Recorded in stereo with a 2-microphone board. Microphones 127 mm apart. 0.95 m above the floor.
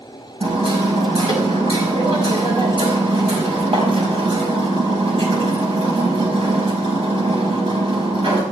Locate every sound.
0.4 s hammering: 45° right (ahead or behind), 5 m